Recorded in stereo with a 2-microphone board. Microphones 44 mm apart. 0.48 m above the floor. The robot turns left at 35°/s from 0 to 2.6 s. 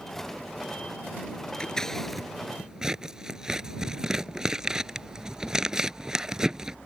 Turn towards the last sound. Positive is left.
turn(degrees=-15)  # may be behind; listen again after turning